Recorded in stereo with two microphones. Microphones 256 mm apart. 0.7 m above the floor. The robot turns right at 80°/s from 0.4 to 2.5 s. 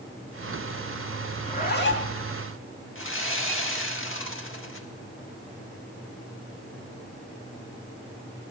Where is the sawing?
50° left (ahead or behind), 1.2 m.